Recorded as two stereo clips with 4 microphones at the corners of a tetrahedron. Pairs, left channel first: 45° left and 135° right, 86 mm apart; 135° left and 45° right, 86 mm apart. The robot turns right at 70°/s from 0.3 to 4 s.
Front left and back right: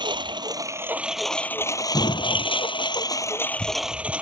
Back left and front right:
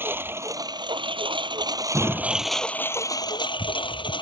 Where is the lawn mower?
110° right; by 4.2 s 150° left.